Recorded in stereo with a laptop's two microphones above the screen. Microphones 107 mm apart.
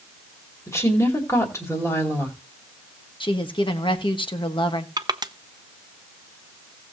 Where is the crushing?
40° right (ahead or behind), 0.6 m.